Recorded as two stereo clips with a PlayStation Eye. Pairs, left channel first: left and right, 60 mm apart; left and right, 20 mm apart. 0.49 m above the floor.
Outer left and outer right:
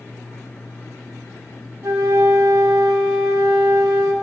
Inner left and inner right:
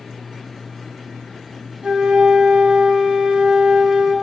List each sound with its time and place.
1.8 s a flute: 60° right (ahead or behind), 2.5 m